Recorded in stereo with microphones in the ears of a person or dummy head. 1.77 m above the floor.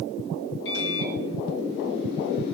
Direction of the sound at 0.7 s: 55° left (ahead or behind).